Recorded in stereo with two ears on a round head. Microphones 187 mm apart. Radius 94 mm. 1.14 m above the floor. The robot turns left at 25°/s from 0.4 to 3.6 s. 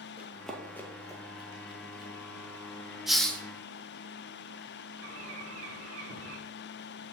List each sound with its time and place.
0.2 s running footsteps: 10° right (ahead or behind), 1.3 m; by 2.1 s 20° left (ahead or behind), 1.9 m
3.1 s a hiss: centre (ahead or behind), 0.7 m; by 3.4 s 5° left (ahead or behind), 0.7 m
5.0 s a bird: 70° right (ahead or behind), 2 m